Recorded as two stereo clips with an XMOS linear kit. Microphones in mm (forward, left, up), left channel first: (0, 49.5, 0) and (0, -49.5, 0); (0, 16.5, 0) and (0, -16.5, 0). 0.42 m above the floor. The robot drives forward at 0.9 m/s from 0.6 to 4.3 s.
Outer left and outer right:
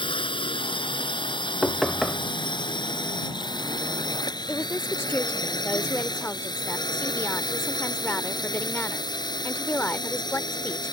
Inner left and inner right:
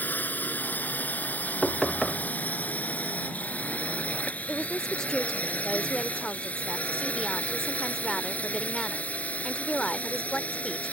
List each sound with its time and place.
0.0 s a drone: 60° left (ahead or behind); by 10.9 s 45° left (ahead or behind)
1.6 s knocking: centre (ahead or behind)
4.5 s a woman speaking: 20° left (ahead or behind)